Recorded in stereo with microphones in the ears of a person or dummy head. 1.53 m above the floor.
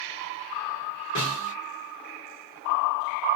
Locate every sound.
1.1 s a snare drum: 35° left (ahead or behind), 1.2 m